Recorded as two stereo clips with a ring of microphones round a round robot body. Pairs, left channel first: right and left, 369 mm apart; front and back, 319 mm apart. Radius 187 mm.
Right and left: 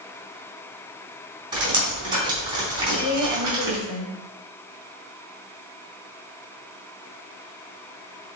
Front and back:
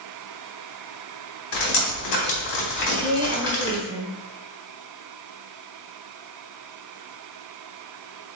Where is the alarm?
I don't hear an alarm.